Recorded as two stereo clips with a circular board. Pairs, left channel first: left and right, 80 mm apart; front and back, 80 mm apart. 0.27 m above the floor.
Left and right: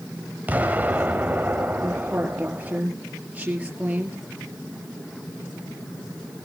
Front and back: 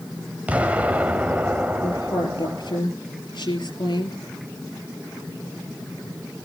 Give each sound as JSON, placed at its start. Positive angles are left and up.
{"t": 0.5, "sound": "an explosion", "azimuth_deg": -130, "distance_m": 1.4}
{"t": 1.8, "sound": "a woman speaking", "azimuth_deg": -20, "distance_m": 4.5}